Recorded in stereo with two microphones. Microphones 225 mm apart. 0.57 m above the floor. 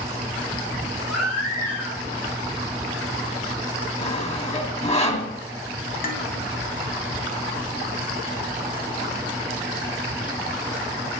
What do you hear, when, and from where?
1.1 s a baby crying: 80° left, 8.5 m
4.0 s sawing: 30° left (ahead or behind), 2 m
6.0 s dishes clattering: 35° left (ahead or behind), 2.5 m